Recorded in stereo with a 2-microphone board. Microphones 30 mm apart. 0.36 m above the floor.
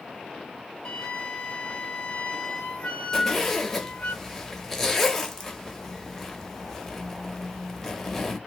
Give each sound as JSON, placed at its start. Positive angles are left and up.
{"t": 0.8, "sound": "a flute", "side_deg": 35, "distance_m": 0.6}
{"t": 3.1, "sound": "a zipper", "side_deg": 10, "distance_m": 0.8}